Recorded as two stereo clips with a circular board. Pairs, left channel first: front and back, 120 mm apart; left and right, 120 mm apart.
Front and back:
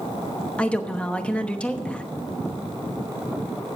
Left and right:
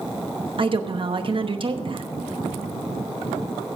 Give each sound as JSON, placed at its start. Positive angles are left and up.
{"t": 0.6, "sound": "a woman speaking", "azimuth_deg": -75, "distance_m": 0.9}